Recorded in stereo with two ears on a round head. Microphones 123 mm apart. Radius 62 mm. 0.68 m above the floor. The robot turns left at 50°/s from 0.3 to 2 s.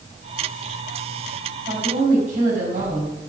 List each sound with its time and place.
1.7 s a woman speaking: 35° right (ahead or behind), 5.5 m; by 3.1 s 55° right (ahead or behind), 5.5 m